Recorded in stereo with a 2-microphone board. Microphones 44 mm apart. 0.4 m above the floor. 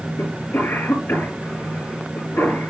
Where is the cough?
70° left (ahead or behind), 6 m.